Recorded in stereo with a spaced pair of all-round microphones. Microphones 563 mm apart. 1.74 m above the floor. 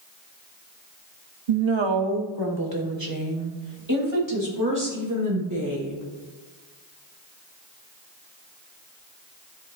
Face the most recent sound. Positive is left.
turn(degrees=-30)  # may be behind; listen again after turning